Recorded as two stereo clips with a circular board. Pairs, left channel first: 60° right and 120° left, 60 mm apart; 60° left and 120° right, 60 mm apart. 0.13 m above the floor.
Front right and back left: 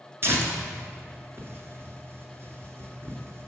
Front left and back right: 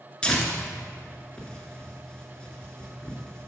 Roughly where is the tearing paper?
Behind left.